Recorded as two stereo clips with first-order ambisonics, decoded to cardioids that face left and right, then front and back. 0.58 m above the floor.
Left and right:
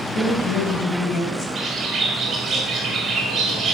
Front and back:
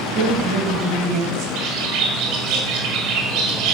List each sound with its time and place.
0.1 s a woman speaking: 140° left, 3 m
1.6 s a bird: 160° right, 1.6 m